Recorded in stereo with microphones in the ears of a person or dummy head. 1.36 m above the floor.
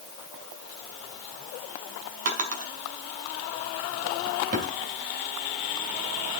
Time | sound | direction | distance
2.2 | a drawer | 50° right (ahead or behind) | 2 m